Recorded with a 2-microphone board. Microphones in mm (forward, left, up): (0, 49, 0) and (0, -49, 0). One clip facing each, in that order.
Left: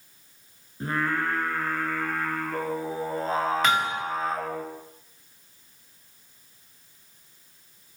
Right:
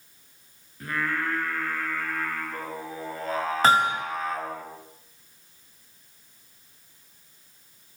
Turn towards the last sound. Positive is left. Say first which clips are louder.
# right 4 dB
turn(degrees=-35)  # may be behind; listen again after turning